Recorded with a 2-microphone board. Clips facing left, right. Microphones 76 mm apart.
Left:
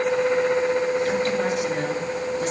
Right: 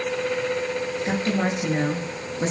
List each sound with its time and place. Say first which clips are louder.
1.1 s a woman speaking: left 2 dB; 30° right (ahead or behind), 5 m